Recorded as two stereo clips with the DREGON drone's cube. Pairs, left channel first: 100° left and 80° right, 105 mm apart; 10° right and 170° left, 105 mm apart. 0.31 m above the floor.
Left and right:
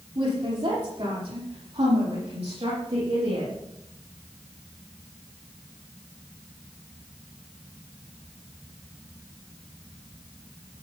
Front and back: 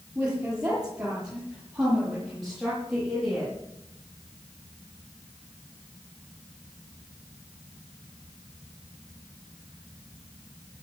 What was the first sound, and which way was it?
A woman speaking, 110° right.